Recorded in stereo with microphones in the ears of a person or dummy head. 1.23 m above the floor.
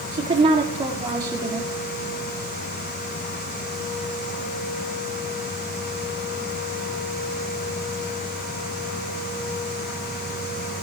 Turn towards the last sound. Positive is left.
turn(degrees=-15)  # may be behind; listen again after turning